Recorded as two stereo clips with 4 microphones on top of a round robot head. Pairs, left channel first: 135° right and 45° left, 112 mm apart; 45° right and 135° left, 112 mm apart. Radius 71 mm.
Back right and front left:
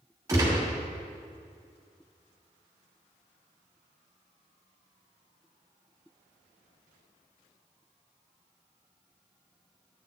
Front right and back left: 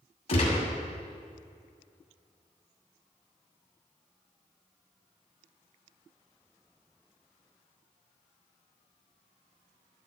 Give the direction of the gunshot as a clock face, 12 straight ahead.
1 o'clock.